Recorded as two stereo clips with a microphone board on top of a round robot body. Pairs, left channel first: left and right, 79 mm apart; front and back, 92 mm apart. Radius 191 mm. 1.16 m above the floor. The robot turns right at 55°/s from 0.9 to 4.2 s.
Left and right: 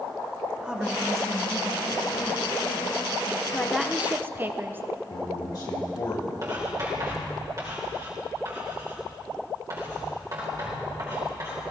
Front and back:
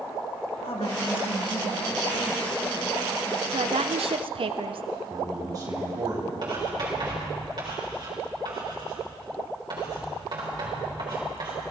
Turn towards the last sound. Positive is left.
turn(degrees=-140)